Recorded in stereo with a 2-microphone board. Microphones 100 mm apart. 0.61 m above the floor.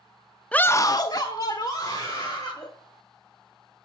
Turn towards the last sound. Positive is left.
turn(degrees=35)  # may be behind; listen again after turning